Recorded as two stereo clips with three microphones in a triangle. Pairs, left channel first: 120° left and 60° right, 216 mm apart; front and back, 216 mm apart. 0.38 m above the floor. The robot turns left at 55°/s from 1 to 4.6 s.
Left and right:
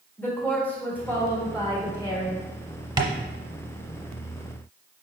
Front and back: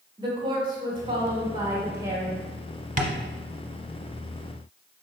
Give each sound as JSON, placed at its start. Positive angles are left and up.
{"t": 0.2, "sound": "a woman speaking", "azimuth_deg": -175, "distance_m": 1.0}
{"t": 3.0, "sound": "tapping", "azimuth_deg": -130, "distance_m": 0.6}